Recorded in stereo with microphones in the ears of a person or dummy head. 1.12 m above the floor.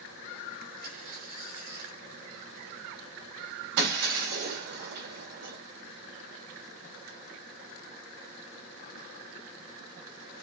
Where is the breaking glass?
55° right (ahead or behind), 2.5 m.